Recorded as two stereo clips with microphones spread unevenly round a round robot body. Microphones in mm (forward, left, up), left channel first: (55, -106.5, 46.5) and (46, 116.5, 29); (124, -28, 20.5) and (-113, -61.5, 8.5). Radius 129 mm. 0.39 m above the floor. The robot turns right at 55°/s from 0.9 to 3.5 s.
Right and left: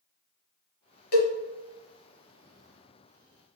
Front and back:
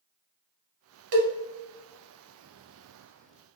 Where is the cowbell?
145° right, 1.0 m; by 1.3 s 135° right, 1.0 m.